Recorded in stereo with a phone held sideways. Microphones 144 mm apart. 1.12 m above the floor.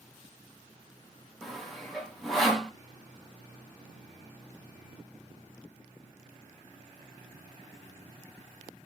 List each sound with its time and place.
1.4 s sawing: centre (ahead or behind), 0.6 m